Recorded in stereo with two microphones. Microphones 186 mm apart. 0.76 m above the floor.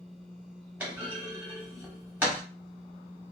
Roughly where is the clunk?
Centre.